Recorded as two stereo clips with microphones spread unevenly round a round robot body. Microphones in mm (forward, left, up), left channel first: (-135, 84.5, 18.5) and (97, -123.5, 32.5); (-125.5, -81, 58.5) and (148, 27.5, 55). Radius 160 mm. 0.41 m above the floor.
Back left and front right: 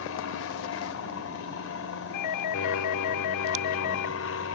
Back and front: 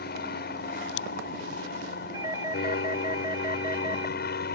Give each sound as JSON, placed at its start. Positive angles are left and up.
{"t": 0.0, "sound": "an aircraft", "azimuth_deg": 155}
{"t": 2.1, "sound": "a doorbell", "azimuth_deg": 100}